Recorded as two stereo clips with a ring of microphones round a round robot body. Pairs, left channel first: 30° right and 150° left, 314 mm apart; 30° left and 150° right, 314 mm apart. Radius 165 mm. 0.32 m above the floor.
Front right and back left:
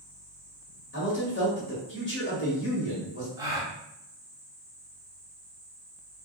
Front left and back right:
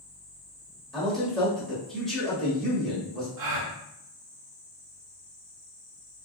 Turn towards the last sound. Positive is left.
turn(degrees=-130)